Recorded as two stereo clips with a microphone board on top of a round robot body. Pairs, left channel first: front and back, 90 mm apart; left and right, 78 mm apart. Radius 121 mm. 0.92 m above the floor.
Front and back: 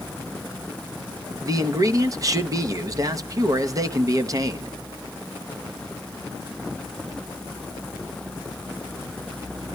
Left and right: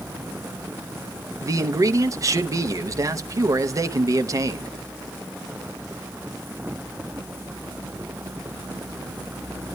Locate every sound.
1.4 s a man speaking: 135° right, 0.8 m